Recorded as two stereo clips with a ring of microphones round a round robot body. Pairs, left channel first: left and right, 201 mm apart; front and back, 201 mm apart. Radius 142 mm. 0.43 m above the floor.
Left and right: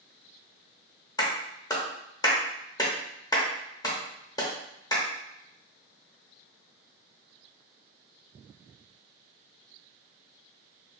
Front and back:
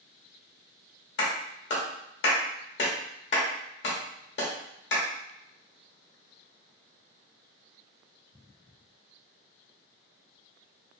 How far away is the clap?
About 1.0 m.